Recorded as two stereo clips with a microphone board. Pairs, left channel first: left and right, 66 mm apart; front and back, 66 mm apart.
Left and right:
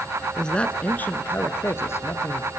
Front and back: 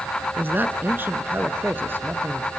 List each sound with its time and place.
0.4 s a man speaking: 160° left, 1.3 m; by 2.5 s 125° left, 2.5 m